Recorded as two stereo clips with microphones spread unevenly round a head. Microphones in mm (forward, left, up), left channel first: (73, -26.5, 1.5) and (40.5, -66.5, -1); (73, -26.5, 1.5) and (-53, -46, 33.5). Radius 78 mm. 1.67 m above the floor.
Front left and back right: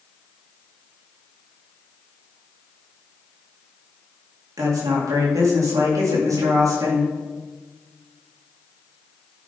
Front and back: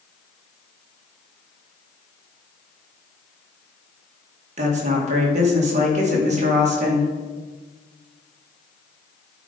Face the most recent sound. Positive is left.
turn(degrees=-140)